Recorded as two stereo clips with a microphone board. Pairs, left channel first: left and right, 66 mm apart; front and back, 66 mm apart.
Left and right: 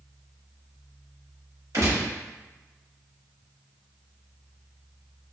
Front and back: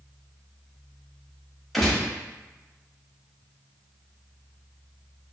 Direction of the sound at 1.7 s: 85° right.